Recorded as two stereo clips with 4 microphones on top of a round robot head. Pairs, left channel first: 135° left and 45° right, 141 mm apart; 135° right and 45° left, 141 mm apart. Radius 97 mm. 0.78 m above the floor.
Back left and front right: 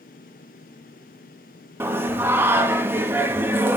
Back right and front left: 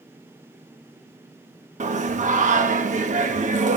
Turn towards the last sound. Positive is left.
turn(degrees=25)